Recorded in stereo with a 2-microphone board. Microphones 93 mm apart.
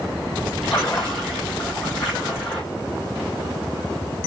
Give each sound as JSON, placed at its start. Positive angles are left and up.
{"t": 0.6, "sound": "a splash", "side_deg": 0, "distance_m": 4.0}